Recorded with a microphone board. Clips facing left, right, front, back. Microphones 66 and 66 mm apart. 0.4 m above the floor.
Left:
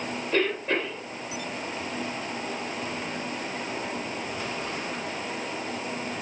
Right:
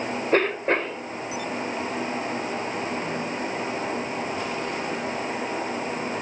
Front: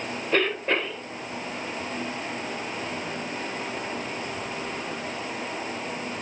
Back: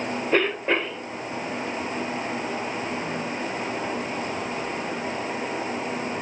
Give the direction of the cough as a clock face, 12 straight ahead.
4 o'clock.